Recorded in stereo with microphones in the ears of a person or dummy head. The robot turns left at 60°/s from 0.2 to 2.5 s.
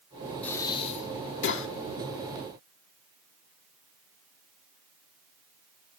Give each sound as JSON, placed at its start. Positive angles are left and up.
{"t": 0.4, "sound": "breathing", "side_deg": 10, "distance_m": 1.1}